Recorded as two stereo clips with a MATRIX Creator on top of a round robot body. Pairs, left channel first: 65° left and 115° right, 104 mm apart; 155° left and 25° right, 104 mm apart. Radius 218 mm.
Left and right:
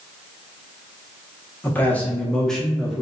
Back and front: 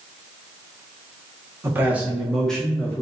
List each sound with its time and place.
1.6 s a man speaking: 15° left, 1.1 m; by 3.0 s 165° left, 1.1 m